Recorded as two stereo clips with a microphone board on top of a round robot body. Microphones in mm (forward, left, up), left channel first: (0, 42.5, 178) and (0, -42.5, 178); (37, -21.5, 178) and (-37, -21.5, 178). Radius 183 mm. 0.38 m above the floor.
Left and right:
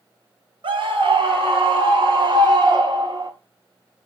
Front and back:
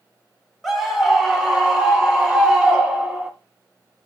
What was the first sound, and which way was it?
A scream, 85° right.